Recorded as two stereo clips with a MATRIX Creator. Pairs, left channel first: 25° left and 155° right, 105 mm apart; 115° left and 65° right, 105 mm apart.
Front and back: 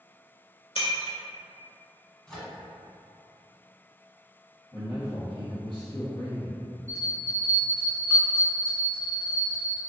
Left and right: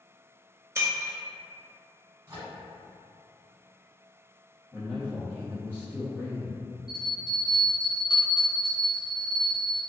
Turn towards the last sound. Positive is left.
turn(degrees=90)